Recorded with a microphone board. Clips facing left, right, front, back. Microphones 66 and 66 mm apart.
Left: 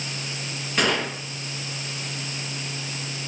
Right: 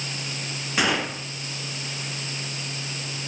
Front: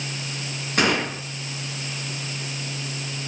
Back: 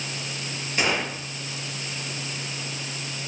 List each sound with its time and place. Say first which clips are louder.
0.8 s a gunshot: even, front 4 dB; 10° right, 3 m